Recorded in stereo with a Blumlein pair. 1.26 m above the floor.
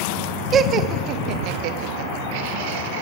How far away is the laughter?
About 1.1 m.